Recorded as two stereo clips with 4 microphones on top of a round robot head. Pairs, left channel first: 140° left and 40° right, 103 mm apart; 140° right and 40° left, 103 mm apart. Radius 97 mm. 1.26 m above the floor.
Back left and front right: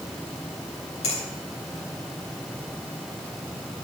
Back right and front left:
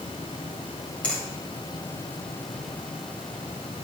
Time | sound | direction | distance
1.0 | a finger snap | 140° left | 8 m